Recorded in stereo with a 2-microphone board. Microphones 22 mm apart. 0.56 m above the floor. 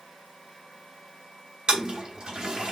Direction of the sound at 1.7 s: 40° right (ahead or behind).